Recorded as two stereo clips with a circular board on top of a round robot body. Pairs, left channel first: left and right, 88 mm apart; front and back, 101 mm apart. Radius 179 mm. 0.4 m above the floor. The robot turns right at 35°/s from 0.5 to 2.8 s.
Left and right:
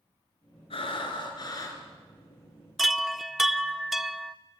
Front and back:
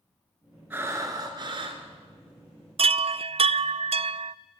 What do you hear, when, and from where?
0.7 s breathing: 110° left, 2.5 m; by 1.8 s 150° left, 2.5 m
2.8 s a chime: 175° right, 0.7 m